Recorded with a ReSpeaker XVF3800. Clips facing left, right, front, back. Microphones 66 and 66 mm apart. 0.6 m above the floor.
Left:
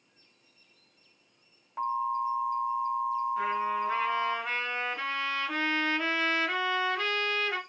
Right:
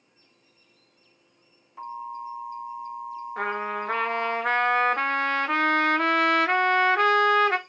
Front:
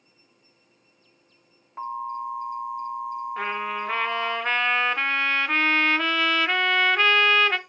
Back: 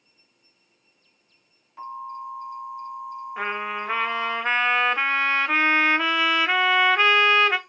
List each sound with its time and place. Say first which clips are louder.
1.8 s an alarm: left 6 dB, front 4 dB; 50° left, 3 m
3.4 s a trumpet: even, back 3 dB; 100° right, 0.6 m